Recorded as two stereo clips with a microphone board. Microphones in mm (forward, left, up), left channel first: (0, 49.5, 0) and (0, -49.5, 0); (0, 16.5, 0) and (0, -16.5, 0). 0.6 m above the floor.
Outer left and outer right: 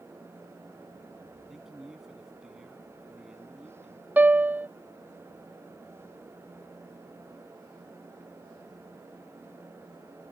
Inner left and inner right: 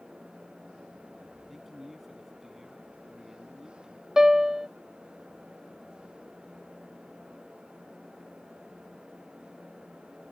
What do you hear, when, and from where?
1.5 s a man speaking: 5° right (ahead or behind)
4.2 s a piano: 15° right (ahead or behind)